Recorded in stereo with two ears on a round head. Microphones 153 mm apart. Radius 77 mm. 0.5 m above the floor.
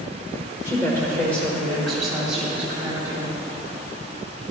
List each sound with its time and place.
0.7 s a woman speaking: 20° left (ahead or behind), 1.8 m; by 3.3 s 15° right (ahead or behind), 2.5 m